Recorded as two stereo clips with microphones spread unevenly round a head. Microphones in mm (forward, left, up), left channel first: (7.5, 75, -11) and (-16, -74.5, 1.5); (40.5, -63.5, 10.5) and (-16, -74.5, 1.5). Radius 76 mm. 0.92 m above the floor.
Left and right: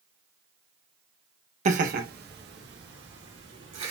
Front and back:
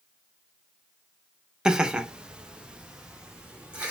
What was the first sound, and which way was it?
Laughter, 110° right.